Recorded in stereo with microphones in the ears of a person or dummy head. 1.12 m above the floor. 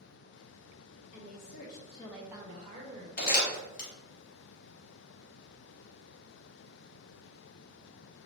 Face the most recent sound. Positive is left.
turn(degrees=40)  # may be behind; listen again after turning